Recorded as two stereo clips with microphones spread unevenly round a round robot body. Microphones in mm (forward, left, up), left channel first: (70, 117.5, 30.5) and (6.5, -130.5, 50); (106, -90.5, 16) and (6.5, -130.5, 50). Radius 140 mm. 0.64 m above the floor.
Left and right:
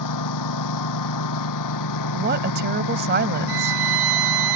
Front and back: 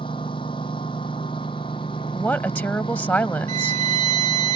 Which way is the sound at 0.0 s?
95° left.